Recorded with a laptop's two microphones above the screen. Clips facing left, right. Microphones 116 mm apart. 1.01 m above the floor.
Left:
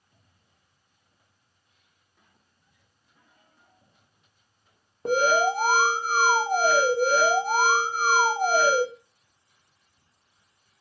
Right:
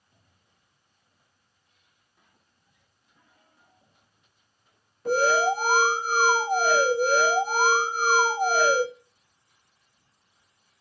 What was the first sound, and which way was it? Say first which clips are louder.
An alarm: even; 55° left (ahead or behind).